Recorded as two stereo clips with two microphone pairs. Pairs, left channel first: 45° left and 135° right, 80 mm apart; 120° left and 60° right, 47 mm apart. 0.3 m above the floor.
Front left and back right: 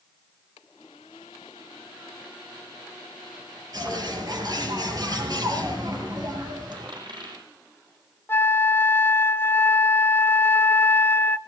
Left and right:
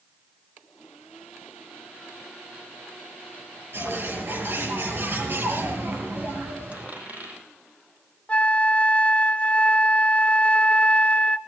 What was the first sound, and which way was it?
A bird, 95° right.